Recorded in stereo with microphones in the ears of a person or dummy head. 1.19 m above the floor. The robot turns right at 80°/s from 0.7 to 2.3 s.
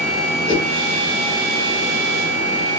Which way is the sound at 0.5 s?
25° left (ahead or behind).